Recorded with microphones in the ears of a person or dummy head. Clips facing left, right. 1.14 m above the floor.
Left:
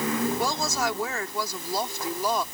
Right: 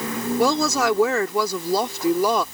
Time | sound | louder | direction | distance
0.4 | a woman speaking | right 8 dB | 65° right (ahead or behind) | ?